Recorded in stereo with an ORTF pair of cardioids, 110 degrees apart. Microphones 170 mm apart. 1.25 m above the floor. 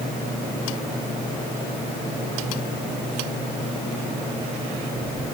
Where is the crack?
No crack in this recording.